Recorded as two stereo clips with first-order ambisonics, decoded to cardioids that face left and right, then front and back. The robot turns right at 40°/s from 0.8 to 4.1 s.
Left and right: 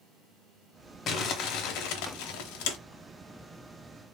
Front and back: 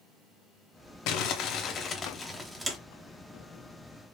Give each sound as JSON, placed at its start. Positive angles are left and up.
{"t": 1.1, "sound": "crumpling", "azimuth_deg": 35, "distance_m": 0.7}